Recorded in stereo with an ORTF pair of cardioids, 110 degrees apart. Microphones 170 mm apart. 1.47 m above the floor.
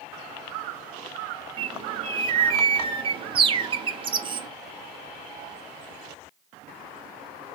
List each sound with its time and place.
1.6 s a bird: 30° right, 0.6 m